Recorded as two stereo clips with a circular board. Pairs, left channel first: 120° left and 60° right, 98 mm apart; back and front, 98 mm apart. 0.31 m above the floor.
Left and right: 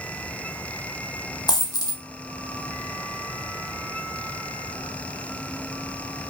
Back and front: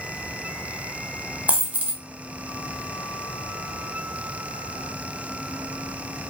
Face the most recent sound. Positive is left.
turn(degrees=75)